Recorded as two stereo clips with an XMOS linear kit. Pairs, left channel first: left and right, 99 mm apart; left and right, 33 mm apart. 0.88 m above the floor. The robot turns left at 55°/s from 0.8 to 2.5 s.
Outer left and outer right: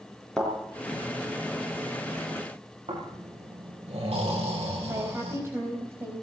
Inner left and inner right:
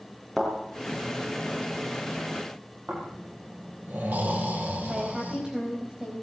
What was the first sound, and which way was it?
A thud, 5° left (ahead or behind).